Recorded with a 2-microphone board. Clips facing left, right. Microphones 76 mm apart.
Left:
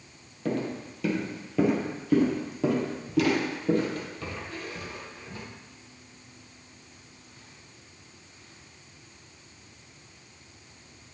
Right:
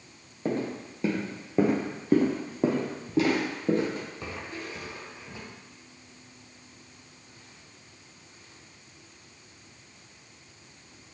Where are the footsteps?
30° right (ahead or behind), 2 m; by 5.4 s 20° right (ahead or behind), 3 m.